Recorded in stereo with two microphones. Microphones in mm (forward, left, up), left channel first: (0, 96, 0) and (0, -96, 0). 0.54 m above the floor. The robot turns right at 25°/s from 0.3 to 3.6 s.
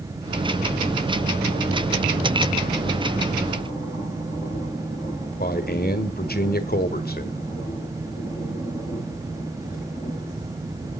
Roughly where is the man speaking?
Left.